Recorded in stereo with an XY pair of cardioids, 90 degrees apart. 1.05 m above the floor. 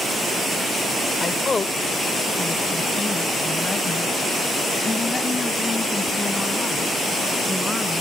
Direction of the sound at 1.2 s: 35° left.